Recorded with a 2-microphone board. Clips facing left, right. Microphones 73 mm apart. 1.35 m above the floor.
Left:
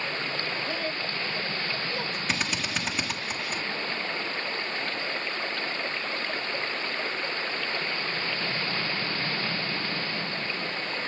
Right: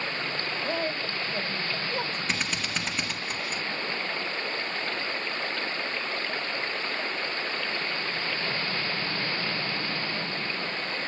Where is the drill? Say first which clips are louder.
Left 1 dB; centre (ahead or behind), 1.7 m.